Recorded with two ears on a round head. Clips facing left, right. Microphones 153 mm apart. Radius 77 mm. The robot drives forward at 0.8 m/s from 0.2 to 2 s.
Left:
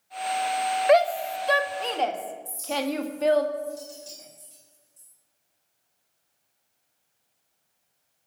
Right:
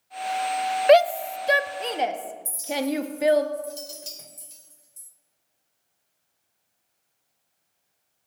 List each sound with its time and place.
0.9 s a shout: 40° right (ahead or behind), 0.6 m; by 3.5 s 15° right (ahead or behind), 1.4 m
2.5 s a clink: 75° right (ahead or behind), 2.5 m